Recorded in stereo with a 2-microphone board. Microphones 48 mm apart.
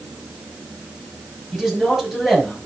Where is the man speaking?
10° right (ahead or behind), 5.5 m.